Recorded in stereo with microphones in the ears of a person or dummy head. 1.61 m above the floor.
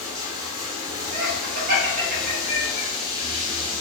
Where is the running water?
30° right (ahead or behind), 0.9 m.